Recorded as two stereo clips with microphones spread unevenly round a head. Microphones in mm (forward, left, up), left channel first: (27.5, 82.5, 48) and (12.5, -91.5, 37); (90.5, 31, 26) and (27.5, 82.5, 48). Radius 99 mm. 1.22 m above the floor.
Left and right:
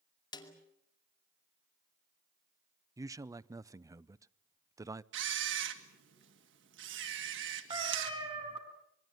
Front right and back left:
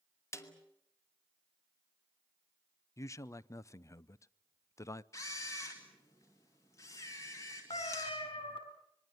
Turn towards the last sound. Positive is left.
turn(degrees=-30)